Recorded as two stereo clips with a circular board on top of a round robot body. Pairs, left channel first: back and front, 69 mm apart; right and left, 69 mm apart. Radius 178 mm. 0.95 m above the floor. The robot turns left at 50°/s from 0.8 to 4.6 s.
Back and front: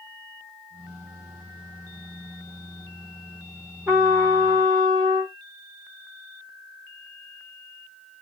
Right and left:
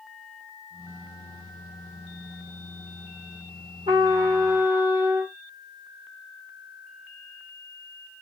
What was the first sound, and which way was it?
A trumpet, 75° left.